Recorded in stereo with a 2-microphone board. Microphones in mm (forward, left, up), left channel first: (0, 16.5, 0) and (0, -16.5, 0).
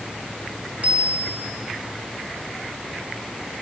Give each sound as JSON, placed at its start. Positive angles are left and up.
{"t": 0.8, "sound": "a bicycle bell", "side_deg": -45, "distance_m": 7.0}